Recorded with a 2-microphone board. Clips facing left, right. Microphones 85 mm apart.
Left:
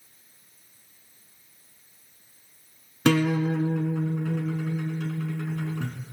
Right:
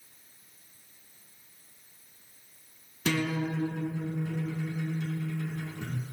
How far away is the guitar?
About 1.8 m.